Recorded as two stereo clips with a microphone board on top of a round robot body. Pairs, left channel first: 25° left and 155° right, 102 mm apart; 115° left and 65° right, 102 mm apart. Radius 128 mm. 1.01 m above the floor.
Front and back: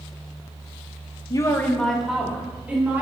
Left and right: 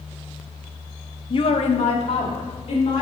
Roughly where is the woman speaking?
Left.